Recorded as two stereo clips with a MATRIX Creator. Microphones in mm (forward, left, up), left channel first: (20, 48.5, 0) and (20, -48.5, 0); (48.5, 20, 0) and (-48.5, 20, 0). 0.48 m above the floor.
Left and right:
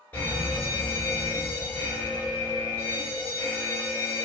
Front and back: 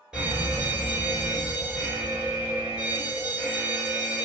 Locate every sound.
0.1 s a fire alarm: 115° left, 1.7 m